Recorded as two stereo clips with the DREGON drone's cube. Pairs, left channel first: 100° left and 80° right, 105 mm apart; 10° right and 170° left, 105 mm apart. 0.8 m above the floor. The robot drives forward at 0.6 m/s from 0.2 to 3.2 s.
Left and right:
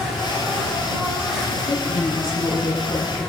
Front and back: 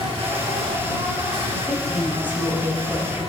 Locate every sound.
0.0 s an insect: 160° right, 5 m; by 3.3 s 165° right, 7 m
1.6 s a woman speaking: 90° left, 4.5 m; by 3.2 s 100° left, 4.5 m